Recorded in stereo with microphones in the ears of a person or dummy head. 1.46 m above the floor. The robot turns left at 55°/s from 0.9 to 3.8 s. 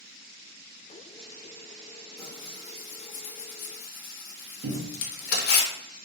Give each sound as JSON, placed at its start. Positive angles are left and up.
{"t": 2.2, "sound": "tearing paper", "side_deg": 15, "distance_m": 0.6}
{"t": 4.6, "sound": "a cupboard door", "side_deg": -55, "distance_m": 0.5}